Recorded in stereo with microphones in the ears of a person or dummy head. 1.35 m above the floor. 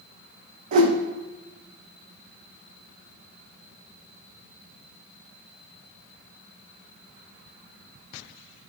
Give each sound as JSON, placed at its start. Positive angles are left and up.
{"t": 0.7, "sound": "a whoosh", "side_deg": -45, "distance_m": 0.8}